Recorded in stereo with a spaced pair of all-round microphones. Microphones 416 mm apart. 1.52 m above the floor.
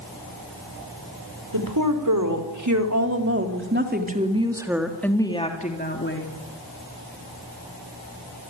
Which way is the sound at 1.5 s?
55° right (ahead or behind).